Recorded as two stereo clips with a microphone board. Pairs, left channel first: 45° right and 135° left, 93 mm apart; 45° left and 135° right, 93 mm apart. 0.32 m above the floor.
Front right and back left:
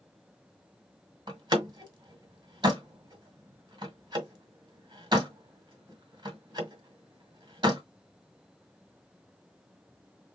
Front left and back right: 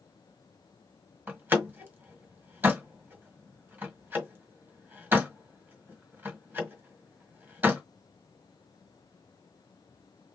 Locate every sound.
1.3 s a door slam: 160° left, 1.6 m